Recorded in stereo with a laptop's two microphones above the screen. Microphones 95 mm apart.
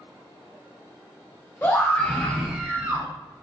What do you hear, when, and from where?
1.6 s a scream: 20° left (ahead or behind), 1.0 m; by 3.1 s 30° right (ahead or behind), 0.8 m